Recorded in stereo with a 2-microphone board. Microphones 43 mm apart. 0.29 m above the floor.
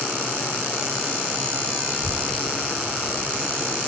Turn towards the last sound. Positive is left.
turn(degrees=-15)  # may be behind; listen again after turning